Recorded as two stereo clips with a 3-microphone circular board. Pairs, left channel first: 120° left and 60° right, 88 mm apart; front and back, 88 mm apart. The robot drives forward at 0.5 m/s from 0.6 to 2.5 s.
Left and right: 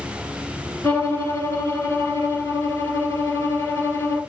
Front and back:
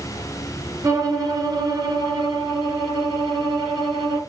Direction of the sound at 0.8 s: 170° left.